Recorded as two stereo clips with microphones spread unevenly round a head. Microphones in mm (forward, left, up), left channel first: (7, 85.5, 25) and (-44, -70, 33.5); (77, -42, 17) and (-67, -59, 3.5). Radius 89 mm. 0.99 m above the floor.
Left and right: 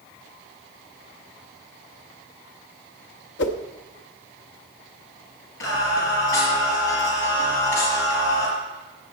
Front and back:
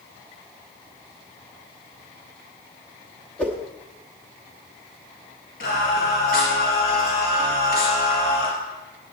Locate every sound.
3.4 s a whoosh: 90° left, 0.9 m
5.6 s singing: 50° left, 4.5 m